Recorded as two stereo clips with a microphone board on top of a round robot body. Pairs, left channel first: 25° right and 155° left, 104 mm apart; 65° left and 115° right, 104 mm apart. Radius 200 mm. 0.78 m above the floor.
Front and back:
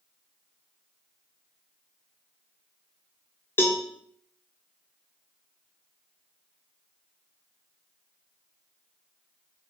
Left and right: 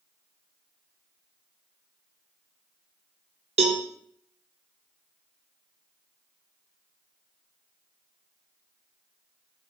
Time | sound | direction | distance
3.6 | a cowbell | 95° right | 0.7 m